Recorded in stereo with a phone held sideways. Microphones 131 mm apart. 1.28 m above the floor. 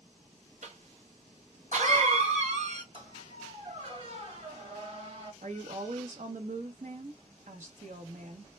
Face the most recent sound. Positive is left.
turn(degrees=-70)  # may be behind; listen again after turning